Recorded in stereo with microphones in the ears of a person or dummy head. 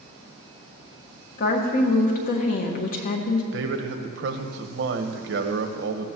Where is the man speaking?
65° right (ahead or behind), 1.1 m.